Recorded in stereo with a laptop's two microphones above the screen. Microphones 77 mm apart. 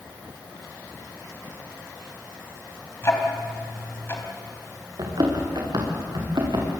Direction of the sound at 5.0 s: 55° right (ahead or behind).